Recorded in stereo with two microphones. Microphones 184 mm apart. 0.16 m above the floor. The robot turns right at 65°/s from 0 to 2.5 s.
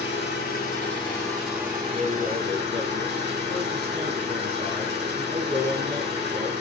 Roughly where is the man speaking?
Behind right.